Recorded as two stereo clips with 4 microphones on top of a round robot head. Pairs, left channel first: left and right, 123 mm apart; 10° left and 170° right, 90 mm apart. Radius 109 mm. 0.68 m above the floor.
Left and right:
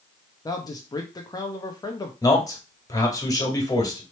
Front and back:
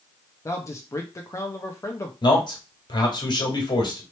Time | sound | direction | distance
0.5 | a man speaking | 45° left | 0.8 m
2.2 | a man speaking | 35° left | 2 m